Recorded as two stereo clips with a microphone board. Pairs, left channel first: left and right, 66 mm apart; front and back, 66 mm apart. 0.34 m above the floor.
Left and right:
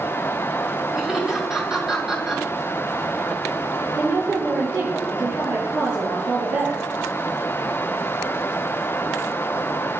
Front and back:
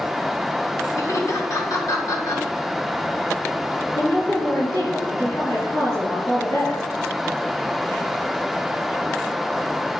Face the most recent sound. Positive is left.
turn(degrees=-35)